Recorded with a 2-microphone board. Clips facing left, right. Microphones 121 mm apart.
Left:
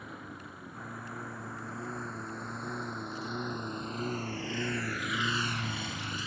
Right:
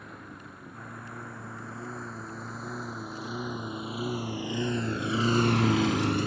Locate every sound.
0.0 s a lawn mower: centre (ahead or behind); by 6.3 s 50° right (ahead or behind)